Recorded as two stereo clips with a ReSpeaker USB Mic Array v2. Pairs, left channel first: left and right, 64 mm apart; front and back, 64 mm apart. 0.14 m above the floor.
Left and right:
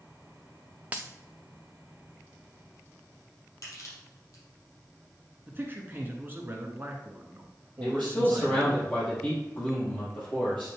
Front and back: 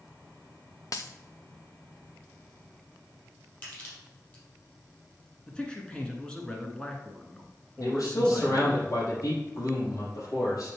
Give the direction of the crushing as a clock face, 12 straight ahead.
10 o'clock.